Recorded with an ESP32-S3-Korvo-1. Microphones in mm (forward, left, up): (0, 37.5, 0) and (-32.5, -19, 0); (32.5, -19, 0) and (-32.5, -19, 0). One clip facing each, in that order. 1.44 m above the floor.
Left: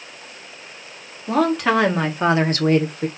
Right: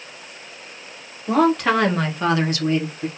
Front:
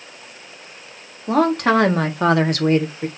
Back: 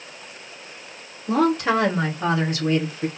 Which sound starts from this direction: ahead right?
A woman speaking, at 1.3 s.